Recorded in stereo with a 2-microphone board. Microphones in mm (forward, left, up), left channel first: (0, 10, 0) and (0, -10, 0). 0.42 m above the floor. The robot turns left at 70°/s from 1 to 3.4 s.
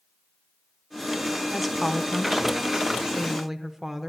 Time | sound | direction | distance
1.5 | a woman speaking | centre (ahead or behind) | 0.8 m